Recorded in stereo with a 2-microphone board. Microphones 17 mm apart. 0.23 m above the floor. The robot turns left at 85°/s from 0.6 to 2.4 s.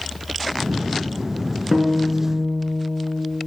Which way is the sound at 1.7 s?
170° right.